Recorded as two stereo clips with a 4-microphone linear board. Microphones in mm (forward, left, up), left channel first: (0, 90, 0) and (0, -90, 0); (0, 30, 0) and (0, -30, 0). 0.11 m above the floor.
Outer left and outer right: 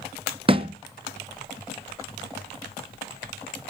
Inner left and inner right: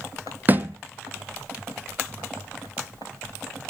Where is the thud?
30° right (ahead or behind), 0.7 m.